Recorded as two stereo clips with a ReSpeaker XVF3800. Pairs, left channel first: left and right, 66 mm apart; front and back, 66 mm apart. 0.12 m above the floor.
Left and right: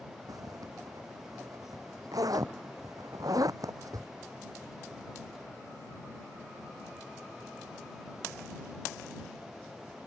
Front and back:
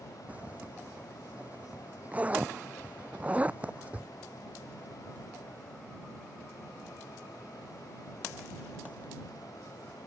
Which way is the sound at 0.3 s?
110° right.